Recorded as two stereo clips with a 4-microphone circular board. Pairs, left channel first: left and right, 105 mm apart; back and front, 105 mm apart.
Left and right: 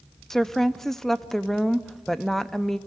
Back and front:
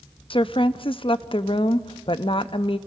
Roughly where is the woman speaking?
Behind.